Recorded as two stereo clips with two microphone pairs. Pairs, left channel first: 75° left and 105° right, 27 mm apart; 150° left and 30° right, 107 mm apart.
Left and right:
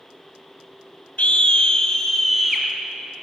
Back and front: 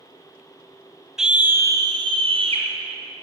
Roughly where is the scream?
Ahead left.